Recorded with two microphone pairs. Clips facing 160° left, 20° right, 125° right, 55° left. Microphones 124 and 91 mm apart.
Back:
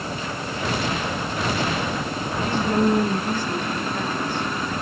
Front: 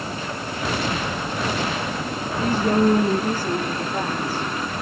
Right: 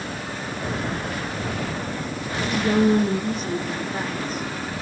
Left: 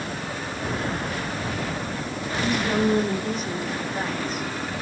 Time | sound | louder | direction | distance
2.4 | a woman speaking | front 2 dB, right 3 dB | 75° right | 9.5 m